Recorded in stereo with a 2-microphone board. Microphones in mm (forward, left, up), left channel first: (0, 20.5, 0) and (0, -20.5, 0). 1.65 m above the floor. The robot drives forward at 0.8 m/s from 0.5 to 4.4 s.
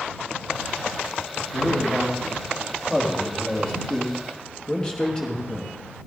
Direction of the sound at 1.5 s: 10° left (ahead or behind).